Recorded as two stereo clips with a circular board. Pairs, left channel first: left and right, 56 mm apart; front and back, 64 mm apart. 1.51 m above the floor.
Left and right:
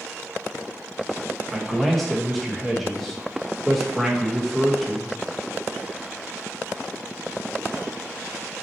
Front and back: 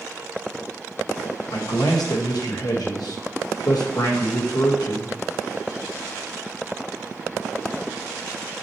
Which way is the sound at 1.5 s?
5° left.